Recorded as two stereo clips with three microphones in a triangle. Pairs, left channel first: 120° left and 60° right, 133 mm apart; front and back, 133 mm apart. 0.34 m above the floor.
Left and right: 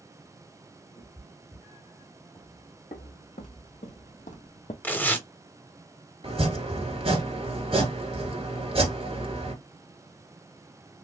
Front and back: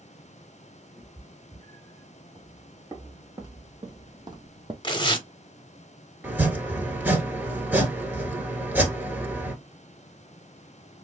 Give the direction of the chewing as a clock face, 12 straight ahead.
I don't hear chewing.